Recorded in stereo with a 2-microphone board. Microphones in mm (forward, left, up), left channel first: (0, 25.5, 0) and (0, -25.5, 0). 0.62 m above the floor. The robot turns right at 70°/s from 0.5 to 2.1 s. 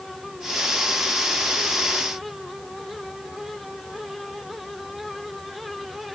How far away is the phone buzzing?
No phone buzzing in this recording.